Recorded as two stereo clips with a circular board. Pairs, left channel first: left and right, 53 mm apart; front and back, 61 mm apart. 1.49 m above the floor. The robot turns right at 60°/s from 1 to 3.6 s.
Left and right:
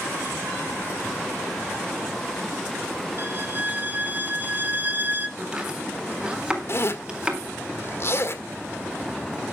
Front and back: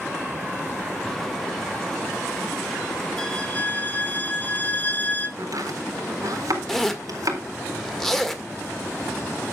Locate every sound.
3.2 s a violin: 75° right, 1.0 m; by 5.3 s 50° right, 1.0 m
5.4 s chopping: 165° right, 4 m
6.7 s a zipper: 85° left, 1.6 m